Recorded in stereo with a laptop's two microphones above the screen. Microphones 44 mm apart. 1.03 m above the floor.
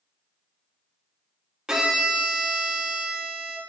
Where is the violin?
15° right (ahead or behind), 0.8 m.